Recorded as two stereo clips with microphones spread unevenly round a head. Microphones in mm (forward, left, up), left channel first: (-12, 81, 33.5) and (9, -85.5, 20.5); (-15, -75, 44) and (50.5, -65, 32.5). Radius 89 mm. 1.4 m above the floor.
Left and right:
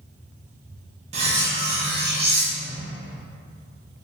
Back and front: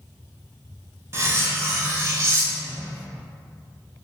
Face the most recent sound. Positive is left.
turn(degrees=-40)